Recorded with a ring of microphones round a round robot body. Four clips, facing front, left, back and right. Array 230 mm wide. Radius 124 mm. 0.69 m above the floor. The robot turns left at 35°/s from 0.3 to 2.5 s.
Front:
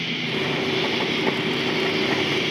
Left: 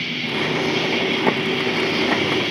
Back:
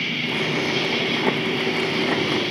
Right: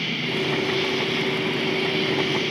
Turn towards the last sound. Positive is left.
turn(degrees=70)